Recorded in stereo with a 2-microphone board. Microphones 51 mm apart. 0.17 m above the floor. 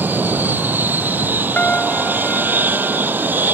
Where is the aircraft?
40° right (ahead or behind).